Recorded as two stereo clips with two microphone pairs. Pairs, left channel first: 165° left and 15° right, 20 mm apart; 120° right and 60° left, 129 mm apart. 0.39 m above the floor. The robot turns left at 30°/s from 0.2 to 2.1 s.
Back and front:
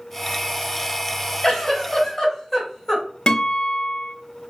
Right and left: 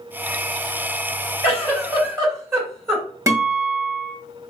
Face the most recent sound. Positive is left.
turn(degrees=125)